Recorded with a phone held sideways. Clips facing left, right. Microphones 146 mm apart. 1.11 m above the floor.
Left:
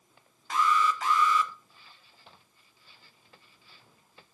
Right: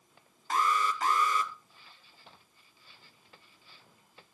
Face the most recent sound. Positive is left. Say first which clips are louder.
# left 3 dB
turn(degrees=-45)  # may be behind; listen again after turning